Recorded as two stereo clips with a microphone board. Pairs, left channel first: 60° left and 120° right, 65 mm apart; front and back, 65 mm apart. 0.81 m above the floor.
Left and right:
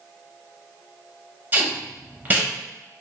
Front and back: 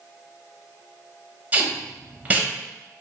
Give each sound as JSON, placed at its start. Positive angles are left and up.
{"t": 1.5, "sound": "tape being pulled", "azimuth_deg": -140, "distance_m": 0.6}